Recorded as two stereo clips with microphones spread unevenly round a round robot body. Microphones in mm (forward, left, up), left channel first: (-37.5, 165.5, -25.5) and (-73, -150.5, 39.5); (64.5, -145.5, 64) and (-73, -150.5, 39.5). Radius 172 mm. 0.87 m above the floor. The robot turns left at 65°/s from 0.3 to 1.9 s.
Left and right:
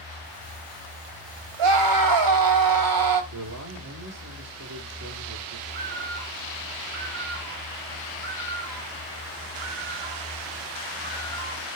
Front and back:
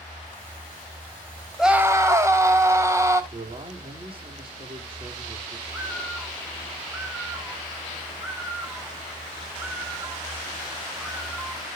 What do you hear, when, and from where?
1.6 s a scream: 90° right, 4 m; by 3.2 s 110° right, 4 m
3.3 s a man speaking: 135° right, 3 m
5.7 s a bird: 100° right, 4 m